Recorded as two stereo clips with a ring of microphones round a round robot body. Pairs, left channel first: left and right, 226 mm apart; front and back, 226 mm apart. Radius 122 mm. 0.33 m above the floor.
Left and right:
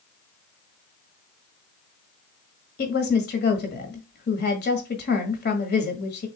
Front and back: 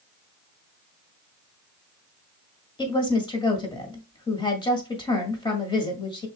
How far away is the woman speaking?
About 1.7 m.